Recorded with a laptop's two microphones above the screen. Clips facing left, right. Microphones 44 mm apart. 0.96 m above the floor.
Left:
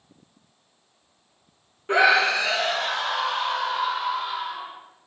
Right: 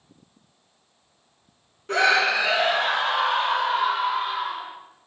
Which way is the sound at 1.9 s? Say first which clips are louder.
Left 1 dB; 20° left (ahead or behind).